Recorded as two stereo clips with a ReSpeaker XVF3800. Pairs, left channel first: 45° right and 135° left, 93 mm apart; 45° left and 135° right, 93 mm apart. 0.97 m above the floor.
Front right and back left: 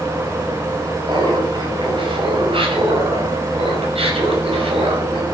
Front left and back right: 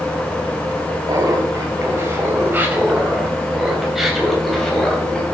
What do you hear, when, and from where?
1.1 s laughter: 170° left, 5.5 m; by 5.2 s 125° left, 6 m